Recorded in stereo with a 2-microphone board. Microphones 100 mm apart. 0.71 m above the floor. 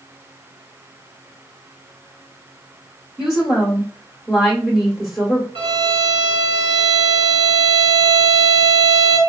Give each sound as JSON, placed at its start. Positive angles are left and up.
{"t": 3.2, "sound": "a woman speaking", "side_deg": 0, "distance_m": 1.0}
{"t": 5.5, "sound": "a violin", "side_deg": -75, "distance_m": 1.4}